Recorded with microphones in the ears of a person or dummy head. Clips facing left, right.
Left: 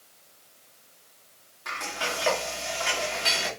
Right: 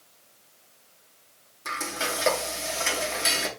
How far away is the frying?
About 1.3 m.